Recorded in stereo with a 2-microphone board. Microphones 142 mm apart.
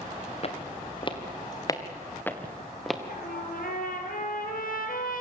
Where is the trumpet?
75° left (ahead or behind), 4 m.